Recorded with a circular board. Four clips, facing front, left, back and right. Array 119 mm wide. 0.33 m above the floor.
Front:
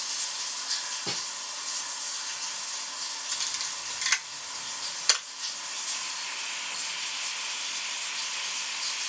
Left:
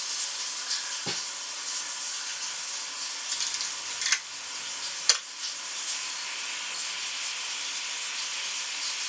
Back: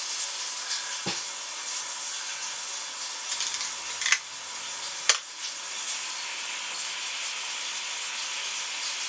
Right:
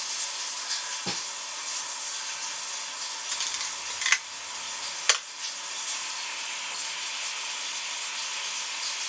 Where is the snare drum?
Straight behind, 1.7 m.